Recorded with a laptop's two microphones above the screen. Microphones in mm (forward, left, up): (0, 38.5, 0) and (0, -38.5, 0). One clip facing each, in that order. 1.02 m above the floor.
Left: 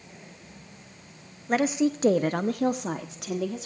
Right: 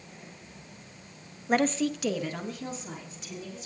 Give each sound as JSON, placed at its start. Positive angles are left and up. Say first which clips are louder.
{"t": 1.5, "sound": "a woman speaking", "louder": "left 2 dB", "side_deg": -5, "distance_m": 0.8}